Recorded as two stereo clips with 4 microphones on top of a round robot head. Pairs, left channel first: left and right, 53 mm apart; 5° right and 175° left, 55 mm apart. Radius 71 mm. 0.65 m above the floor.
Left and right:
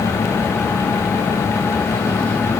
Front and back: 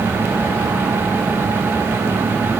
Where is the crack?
I don't hear a crack.